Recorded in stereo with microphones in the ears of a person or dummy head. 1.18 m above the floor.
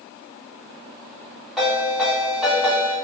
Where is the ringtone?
5° right (ahead or behind), 1.7 m.